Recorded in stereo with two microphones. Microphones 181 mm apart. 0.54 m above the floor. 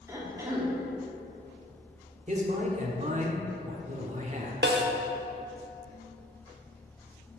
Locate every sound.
0.1 s a cough: 15° right (ahead or behind), 1.4 m
2.3 s a man speaking: 40° right (ahead or behind), 1.0 m
4.6 s a snare drum: 70° right (ahead or behind), 0.7 m